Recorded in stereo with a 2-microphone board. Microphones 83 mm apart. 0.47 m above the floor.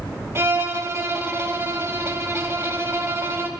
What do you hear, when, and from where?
0.3 s a violin: 35° right (ahead or behind), 0.7 m